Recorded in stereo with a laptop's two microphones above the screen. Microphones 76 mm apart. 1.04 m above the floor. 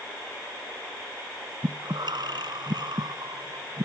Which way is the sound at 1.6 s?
70° right (ahead or behind).